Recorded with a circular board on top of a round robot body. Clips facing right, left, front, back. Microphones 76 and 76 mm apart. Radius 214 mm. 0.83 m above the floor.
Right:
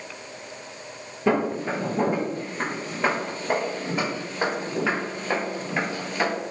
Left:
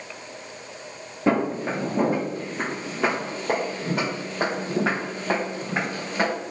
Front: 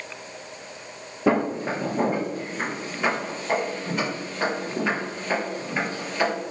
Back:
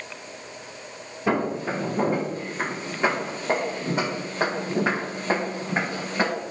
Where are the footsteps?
20° left, 1.0 m; by 6.3 s 135° left, 3 m.